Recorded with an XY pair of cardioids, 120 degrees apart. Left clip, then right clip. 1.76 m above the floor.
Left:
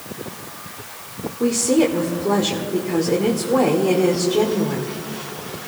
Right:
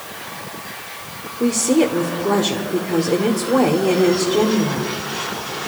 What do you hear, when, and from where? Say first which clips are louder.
1.4 s a woman speaking: right 1 dB; 5° right, 1.2 m